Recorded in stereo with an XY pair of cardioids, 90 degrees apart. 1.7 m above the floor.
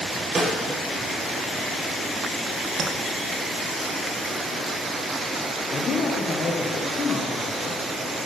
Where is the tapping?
55° right, 1.6 m.